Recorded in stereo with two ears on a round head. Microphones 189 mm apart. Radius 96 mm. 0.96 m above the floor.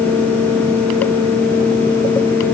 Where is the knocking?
No knocking in this recording.